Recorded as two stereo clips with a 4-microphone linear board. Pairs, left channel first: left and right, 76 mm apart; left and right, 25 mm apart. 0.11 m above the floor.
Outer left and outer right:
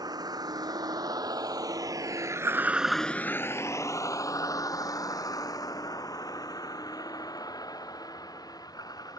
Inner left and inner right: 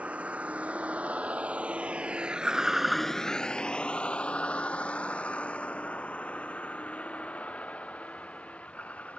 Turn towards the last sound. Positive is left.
turn(degrees=55)  # may be behind; listen again after turning